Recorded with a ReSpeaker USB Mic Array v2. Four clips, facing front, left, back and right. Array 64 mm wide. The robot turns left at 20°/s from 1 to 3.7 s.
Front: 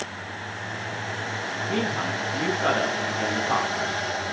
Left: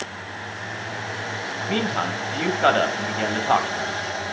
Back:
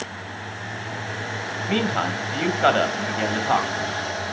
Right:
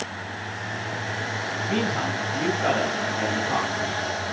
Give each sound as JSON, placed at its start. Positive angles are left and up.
{"t": 1.7, "sound": "a man speaking", "azimuth_deg": 160, "distance_m": 2.5}